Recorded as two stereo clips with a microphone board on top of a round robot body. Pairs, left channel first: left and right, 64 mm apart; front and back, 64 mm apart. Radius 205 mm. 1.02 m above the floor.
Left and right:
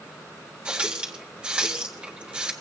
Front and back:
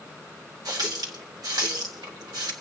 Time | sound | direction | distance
0.7 | a running tap | 165° right | 1.6 m